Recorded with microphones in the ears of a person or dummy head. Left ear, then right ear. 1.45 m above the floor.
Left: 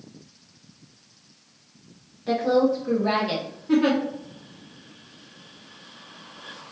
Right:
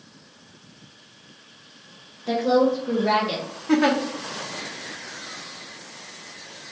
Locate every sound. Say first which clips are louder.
2.3 s a woman speaking: right 1 dB; centre (ahead or behind), 1.1 m; by 3.5 s 25° left (ahead or behind), 1.5 m
3.7 s a giggle: right 1 dB; 50° right (ahead or behind), 0.8 m